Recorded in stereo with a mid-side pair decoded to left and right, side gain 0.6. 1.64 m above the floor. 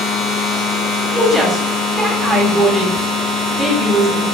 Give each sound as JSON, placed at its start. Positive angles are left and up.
{"t": 0.0, "sound": "a machine running", "azimuth_deg": 70, "distance_m": 1.1}
{"t": 1.1, "sound": "a woman speaking", "azimuth_deg": 10, "distance_m": 1.1}